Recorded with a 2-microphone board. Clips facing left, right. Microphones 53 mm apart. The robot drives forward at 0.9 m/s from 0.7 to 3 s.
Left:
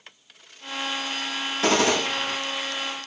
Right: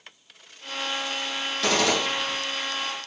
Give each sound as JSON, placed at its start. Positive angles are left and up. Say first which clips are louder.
{"t": 1.6, "sound": "a gunshot", "louder": "left 2 dB", "side_deg": 25, "distance_m": 6.5}